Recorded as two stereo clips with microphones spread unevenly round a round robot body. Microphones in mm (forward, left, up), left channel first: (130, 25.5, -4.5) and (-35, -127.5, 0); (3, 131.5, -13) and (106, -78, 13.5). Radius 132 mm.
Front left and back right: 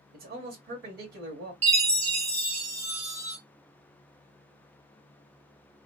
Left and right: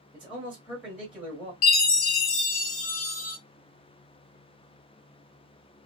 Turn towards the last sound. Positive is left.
turn(degrees=160)